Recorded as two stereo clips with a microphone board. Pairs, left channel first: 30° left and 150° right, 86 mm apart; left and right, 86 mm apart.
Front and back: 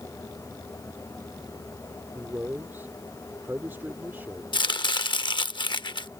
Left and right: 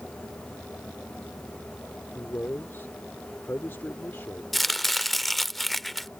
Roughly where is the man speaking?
Behind left.